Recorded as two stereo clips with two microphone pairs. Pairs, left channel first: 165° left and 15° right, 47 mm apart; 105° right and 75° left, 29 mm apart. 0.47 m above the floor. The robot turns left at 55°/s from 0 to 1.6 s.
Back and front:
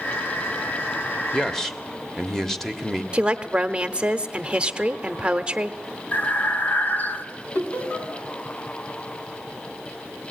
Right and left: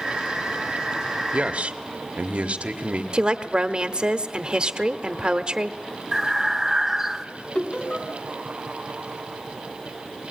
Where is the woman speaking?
40° left, 1.1 m.